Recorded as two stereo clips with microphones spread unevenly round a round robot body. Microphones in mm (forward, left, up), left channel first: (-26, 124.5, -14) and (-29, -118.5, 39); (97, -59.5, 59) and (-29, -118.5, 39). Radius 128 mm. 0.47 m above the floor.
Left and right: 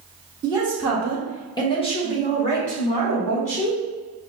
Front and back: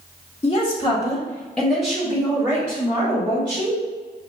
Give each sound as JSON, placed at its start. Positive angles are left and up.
{"t": 0.4, "sound": "a woman speaking", "azimuth_deg": -5, "distance_m": 1.3}